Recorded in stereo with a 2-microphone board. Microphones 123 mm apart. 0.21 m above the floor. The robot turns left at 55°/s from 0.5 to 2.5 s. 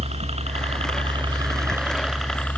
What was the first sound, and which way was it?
A helicopter, 60° right (ahead or behind).